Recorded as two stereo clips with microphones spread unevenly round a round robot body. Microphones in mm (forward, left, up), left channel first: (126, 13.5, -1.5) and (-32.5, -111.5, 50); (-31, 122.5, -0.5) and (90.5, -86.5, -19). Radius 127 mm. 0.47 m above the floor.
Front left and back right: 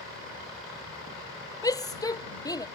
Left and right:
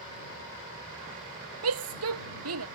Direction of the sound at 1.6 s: 35° right.